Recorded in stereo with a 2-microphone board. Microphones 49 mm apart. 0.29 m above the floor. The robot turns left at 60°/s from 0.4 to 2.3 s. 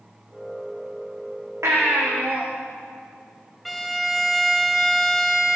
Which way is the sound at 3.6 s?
Centre (ahead or behind).